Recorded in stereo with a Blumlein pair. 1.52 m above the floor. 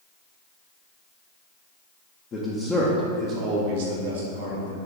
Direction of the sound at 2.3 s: 25° left.